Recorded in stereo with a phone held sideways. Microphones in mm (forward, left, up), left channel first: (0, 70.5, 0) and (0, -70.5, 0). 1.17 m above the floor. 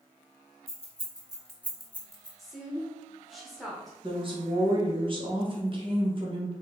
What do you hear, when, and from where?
0.7 s keys jangling: 45° right (ahead or behind), 1.4 m; by 2.3 s 35° left (ahead or behind), 0.8 m
2.4 s a woman speaking: centre (ahead or behind), 1.0 m
4.0 s a woman speaking: 35° right (ahead or behind), 1.1 m